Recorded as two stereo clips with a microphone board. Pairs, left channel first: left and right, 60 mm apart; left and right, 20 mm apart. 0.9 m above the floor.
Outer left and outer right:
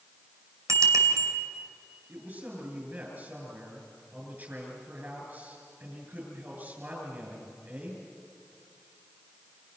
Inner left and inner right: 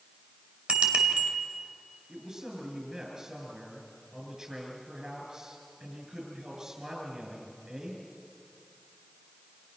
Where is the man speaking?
35° right (ahead or behind), 7.5 m.